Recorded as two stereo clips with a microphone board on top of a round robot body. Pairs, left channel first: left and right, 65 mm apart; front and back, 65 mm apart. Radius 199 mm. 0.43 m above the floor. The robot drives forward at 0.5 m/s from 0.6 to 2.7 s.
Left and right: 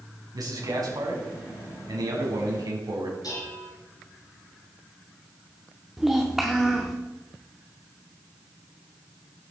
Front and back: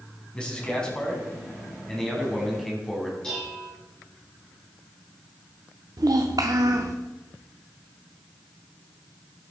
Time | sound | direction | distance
0.3 | a man speaking | 75° right | 5 m
3.2 | dishes clattering | 80° left | 6.5 m
6.0 | a child speaking | 175° right | 1.1 m